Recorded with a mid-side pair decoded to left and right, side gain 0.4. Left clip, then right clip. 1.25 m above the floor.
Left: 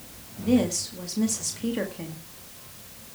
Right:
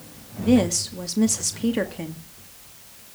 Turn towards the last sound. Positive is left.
turn(degrees=-45)